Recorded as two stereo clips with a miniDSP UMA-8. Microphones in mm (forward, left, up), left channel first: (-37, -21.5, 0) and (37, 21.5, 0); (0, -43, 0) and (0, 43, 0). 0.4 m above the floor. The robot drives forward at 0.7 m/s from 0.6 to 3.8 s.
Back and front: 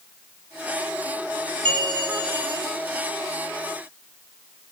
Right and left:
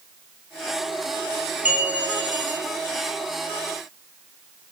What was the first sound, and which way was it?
A bell, 20° left.